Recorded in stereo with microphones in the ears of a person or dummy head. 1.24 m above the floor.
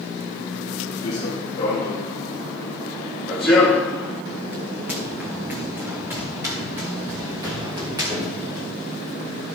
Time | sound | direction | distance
1.0 | running footsteps | 25° left (ahead or behind) | 2.5 m